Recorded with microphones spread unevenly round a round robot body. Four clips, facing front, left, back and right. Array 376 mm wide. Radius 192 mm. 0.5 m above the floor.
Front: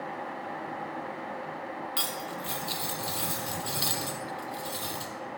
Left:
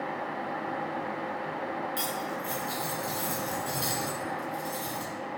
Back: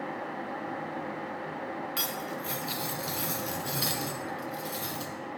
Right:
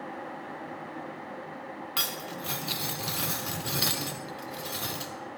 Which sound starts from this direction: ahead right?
Cutlery clinking, at 2.0 s.